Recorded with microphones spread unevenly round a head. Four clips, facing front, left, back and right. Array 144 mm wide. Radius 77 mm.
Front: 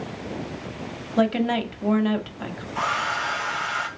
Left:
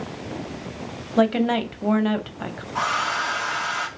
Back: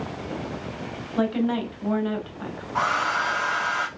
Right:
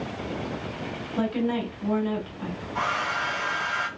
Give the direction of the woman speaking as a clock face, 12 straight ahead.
10 o'clock.